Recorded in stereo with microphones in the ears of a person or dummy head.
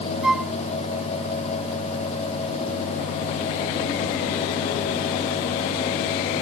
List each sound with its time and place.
0.2 s a flute: centre (ahead or behind)